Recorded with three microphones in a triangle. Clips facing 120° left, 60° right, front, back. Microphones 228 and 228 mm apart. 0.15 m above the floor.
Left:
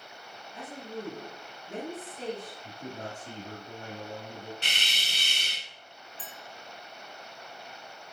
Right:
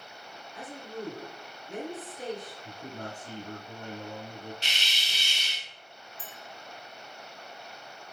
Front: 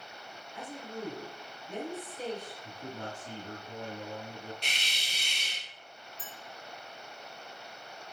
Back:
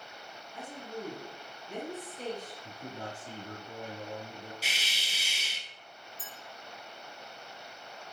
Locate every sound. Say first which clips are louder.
0.5 s a woman speaking: left 1 dB, even; 75° left, 2.0 m
2.6 s a man speaking: left 1 dB, front 1 dB; 105° left, 1.8 m
4.6 s a hiss: left 1 dB, even; 95° left, 0.5 m
6.2 s a clink: even, front 2 dB; 85° right, 1.2 m